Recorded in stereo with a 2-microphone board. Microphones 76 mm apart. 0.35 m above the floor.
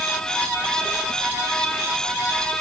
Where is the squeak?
I don't hear a squeak.